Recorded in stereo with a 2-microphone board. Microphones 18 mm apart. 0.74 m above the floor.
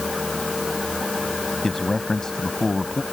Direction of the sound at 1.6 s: 30° left (ahead or behind).